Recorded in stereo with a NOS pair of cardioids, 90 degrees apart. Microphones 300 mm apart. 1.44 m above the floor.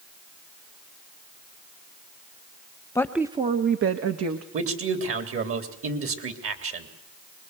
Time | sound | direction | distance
3.0 | a woman speaking | 10° left | 1.1 m
4.5 | a man speaking | 50° right | 3.5 m